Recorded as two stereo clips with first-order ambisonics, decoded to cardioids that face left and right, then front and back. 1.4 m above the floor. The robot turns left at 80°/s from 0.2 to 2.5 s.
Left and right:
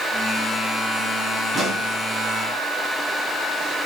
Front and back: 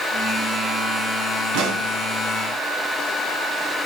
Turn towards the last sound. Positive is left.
turn(degrees=120)